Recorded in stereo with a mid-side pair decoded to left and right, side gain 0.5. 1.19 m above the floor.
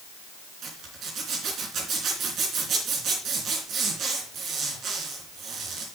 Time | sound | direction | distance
0.6 | a zipper | 60° right | 3.5 m